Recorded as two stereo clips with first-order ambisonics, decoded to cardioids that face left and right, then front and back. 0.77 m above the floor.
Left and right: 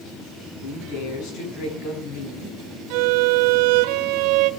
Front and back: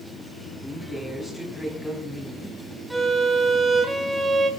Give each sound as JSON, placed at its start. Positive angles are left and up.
{"t": 0.6, "sound": "a woman speaking", "azimuth_deg": 80, "distance_m": 8.0}
{"t": 2.9, "sound": "a violin", "azimuth_deg": -90, "distance_m": 1.4}